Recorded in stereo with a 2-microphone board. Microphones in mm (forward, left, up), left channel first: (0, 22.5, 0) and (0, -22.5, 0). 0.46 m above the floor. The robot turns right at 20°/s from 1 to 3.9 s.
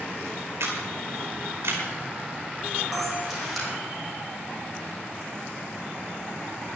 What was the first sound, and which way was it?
A camera shutter, 75° right (ahead or behind).